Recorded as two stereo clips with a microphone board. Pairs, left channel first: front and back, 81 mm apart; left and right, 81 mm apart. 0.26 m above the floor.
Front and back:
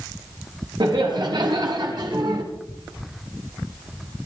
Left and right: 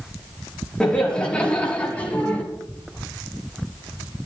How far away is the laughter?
About 6.5 m.